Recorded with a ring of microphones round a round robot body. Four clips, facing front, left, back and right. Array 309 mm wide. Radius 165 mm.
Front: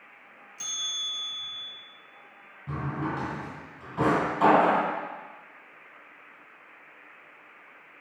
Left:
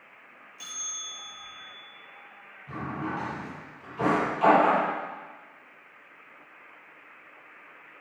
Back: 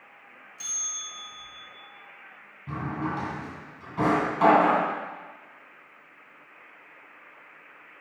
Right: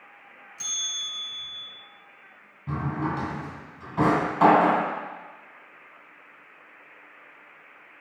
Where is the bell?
70° right, 3 m.